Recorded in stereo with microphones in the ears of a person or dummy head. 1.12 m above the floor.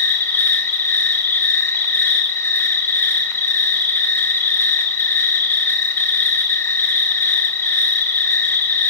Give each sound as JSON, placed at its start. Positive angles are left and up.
{"t": 0.0, "sound": "an insect", "side_deg": 10, "distance_m": 1.1}